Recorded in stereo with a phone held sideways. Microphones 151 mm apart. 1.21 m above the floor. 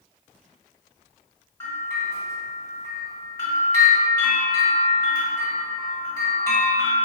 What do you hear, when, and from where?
1.6 s a bell: 15° left (ahead or behind), 1.2 m